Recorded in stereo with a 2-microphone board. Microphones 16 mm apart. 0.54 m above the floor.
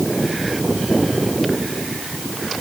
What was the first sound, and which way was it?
Only background noise.